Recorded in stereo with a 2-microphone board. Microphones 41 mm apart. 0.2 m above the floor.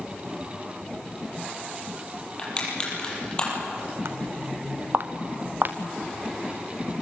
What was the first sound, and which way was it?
Crushing, 25° left (ahead or behind).